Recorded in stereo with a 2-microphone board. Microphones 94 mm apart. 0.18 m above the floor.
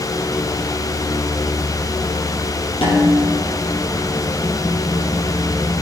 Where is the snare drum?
75° left (ahead or behind), 5 m.